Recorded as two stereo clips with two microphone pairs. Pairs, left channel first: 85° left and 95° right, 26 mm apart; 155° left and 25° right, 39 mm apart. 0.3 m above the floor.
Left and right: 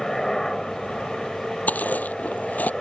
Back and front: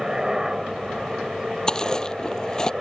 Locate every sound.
0.0 s a helicopter: 30° left
1.7 s chewing: 85° left